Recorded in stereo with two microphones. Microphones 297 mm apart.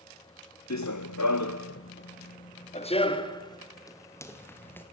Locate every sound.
0.7 s running footsteps: 65° left (ahead or behind), 1.2 m; by 4.8 s 5° left (ahead or behind), 4.5 m